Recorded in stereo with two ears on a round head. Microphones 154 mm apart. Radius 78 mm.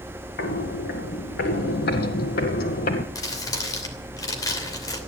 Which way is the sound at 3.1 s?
25° left (ahead or behind).